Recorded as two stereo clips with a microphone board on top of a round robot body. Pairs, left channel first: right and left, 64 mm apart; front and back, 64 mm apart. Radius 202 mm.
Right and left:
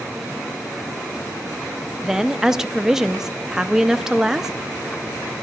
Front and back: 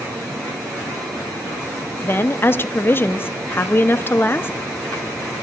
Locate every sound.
2.0 s a woman speaking: 15° left, 0.6 m